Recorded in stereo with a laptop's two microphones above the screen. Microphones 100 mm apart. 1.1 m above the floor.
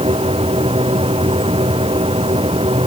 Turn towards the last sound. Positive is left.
turn(degrees=-70)  # may be behind; listen again after turning